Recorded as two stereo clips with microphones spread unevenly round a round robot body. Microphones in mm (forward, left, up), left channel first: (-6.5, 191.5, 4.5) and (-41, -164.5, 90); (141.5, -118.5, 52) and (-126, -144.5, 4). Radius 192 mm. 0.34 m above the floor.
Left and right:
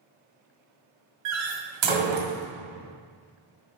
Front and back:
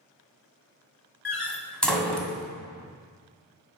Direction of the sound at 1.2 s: 85° right.